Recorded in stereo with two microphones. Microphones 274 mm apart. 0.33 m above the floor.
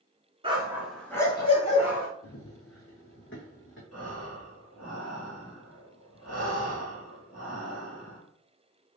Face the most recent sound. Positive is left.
turn(degrees=60)  # may be behind; listen again after turning